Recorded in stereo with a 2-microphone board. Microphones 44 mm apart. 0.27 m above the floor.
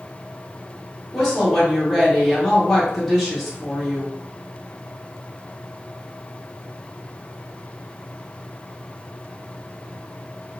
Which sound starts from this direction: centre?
A woman speaking, at 1.1 s.